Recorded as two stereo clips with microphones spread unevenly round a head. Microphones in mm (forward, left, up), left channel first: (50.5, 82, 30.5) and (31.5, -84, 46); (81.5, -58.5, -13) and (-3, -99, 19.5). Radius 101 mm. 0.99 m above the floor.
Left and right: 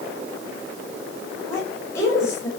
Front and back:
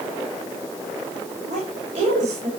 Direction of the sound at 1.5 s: 160° left.